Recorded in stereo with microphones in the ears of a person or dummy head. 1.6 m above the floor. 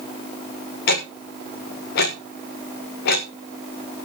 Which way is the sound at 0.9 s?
65° left (ahead or behind).